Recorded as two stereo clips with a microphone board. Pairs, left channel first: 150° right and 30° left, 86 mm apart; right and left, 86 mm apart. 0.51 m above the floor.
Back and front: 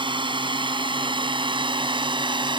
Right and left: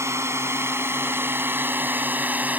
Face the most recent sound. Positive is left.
turn(degrees=20)